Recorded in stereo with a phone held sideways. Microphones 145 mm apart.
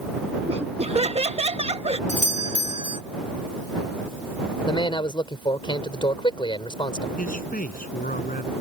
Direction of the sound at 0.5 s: 45° right (ahead or behind).